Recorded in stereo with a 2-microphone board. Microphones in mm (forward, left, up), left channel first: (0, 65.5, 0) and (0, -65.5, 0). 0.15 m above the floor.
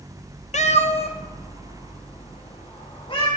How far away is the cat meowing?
About 0.6 m.